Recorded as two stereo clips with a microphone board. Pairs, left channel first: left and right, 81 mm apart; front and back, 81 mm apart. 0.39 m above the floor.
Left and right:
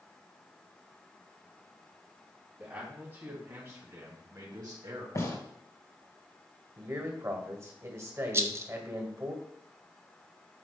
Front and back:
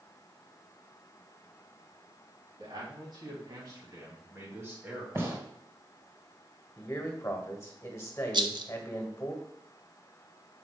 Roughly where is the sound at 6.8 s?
Ahead right.